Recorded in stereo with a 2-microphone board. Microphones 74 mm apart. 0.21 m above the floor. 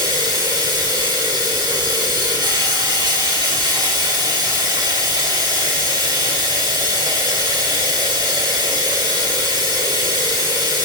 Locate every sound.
0.0 s running water: 70° right (ahead or behind), 3.5 m